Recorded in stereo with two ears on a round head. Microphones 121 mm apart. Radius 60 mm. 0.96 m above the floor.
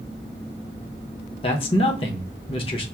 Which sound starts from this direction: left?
A man speaking, at 1.4 s.